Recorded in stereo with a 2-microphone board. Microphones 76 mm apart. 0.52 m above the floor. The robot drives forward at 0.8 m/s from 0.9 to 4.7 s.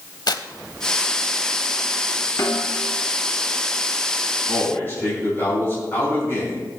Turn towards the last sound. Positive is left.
turn(degrees=30)  # may be behind; listen again after turning